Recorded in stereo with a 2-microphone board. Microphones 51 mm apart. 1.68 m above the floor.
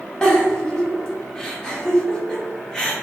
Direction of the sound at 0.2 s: 15° left (ahead or behind).